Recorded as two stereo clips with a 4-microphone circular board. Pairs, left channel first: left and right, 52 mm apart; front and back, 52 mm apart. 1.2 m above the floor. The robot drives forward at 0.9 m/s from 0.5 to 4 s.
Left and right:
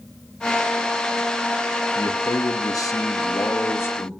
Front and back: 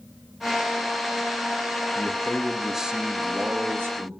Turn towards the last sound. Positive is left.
turn(degrees=135)